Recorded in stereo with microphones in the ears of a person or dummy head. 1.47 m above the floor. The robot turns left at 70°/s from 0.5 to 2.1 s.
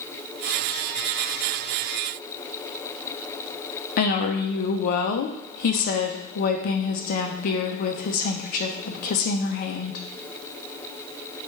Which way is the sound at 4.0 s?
45° left (ahead or behind).